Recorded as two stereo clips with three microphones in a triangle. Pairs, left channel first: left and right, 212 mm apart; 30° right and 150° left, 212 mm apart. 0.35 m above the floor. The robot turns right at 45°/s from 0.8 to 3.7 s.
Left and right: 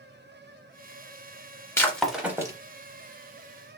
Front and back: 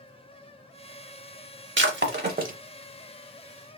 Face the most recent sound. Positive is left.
turn(degrees=-105)